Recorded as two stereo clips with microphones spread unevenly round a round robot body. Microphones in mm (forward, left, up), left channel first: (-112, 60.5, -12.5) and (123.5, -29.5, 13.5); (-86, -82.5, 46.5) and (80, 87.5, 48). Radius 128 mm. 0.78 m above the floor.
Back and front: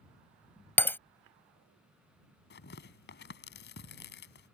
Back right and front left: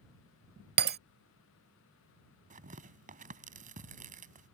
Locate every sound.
0.8 s breaking glass: 75° left
2.5 s tearing paper: 105° left